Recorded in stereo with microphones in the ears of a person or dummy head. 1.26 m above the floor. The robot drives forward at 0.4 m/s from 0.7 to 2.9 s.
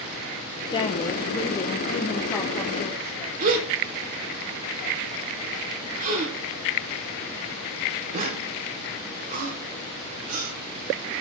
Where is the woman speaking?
25° left (ahead or behind), 0.8 m; by 3.3 s 10° left (ahead or behind), 1.6 m.